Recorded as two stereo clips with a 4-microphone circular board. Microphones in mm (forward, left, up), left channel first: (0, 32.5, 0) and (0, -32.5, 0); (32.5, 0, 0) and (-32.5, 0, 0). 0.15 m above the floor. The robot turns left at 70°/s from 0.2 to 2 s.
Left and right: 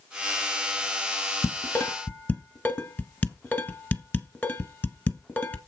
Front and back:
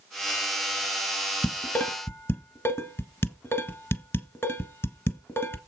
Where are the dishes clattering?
75° left, 1.4 m; by 5.6 s 35° left, 1.4 m.